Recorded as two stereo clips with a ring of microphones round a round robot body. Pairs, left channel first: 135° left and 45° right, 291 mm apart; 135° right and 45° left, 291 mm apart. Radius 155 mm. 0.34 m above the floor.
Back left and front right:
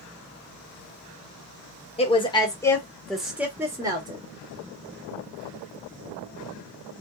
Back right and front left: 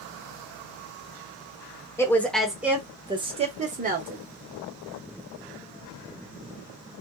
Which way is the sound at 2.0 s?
160° left.